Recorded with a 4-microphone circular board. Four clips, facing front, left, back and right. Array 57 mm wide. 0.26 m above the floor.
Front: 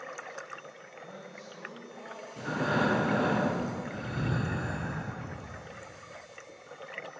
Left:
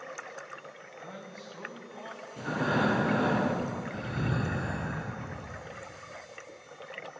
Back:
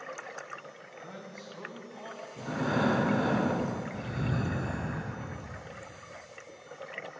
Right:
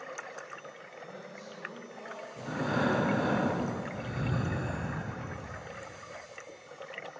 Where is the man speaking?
120° left, 2.5 m; by 2.3 s 125° left, 4 m.